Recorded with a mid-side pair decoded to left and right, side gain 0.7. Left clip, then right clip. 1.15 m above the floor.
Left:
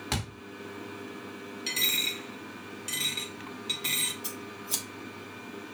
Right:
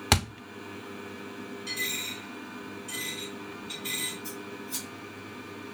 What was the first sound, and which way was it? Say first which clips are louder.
A thud: right 9 dB; 45° right.